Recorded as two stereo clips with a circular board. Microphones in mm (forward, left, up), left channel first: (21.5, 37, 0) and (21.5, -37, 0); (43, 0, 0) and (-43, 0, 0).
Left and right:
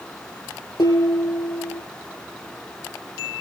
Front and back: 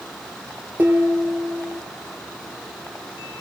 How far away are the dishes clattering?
About 5.5 m.